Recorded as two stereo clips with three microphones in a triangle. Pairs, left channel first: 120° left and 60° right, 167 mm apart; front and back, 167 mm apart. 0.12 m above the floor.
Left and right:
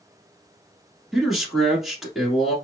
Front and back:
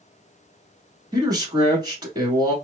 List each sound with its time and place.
1.1 s a man speaking: 145° right, 1.2 m